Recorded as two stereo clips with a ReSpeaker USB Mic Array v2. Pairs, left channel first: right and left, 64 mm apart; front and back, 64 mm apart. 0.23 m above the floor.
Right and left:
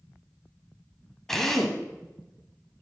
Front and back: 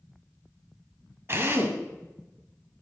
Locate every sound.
1.3 s a drill: 170° right, 1.9 m